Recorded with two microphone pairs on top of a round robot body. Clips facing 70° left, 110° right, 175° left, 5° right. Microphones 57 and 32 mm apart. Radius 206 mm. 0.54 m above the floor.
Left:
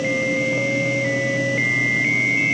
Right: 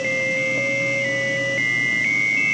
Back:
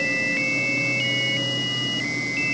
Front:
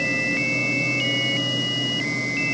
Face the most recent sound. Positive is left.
No sound to turn to.